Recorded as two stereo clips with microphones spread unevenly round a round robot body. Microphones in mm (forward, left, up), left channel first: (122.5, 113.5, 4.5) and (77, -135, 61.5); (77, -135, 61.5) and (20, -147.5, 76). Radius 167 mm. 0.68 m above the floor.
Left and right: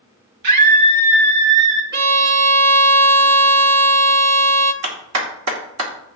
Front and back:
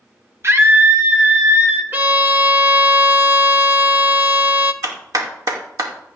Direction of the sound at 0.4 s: 120° right.